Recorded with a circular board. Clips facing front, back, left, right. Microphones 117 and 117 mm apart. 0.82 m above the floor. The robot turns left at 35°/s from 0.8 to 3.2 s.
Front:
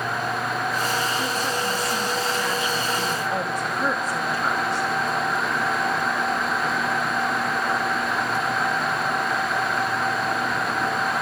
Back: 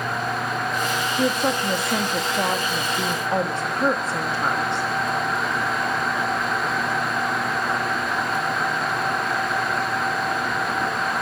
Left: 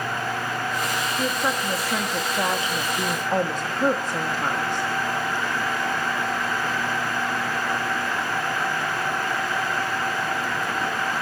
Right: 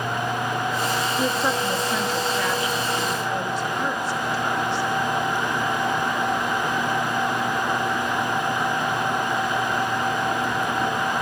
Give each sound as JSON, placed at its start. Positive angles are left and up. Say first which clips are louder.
{"t": 1.2, "sound": "a woman speaking", "louder": "back 4 dB, right 2 dB", "azimuth_deg": -165, "distance_m": 1.4}